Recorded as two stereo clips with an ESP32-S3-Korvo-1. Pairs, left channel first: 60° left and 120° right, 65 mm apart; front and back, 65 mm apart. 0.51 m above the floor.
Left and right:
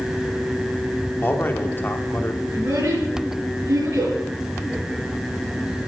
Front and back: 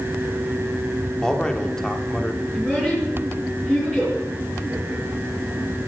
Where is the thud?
I don't hear a thud.